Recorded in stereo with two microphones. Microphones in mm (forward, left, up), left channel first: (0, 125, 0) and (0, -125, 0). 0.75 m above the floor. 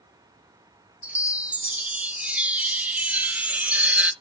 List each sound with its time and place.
1.0 s a chime: 5° right (ahead or behind), 0.6 m